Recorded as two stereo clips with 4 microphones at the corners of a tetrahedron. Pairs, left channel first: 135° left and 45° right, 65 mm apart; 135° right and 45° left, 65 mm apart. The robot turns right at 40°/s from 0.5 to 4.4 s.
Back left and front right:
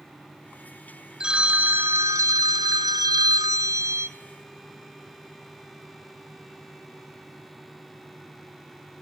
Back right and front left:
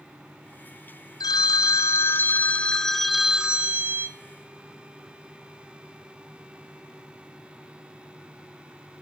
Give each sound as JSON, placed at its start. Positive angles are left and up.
{"t": 1.2, "sound": "a phone ringing", "azimuth_deg": -120, "distance_m": 0.6}